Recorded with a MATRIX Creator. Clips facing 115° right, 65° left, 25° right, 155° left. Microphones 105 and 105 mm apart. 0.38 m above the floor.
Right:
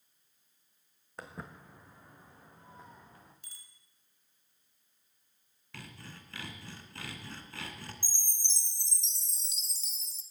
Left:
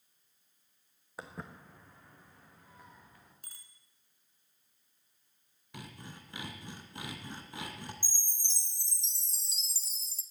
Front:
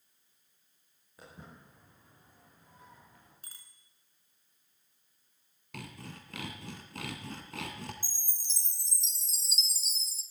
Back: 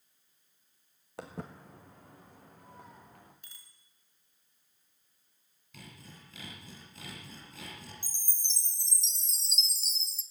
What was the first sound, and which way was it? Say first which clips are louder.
Footsteps: even, back 9 dB; 150° left.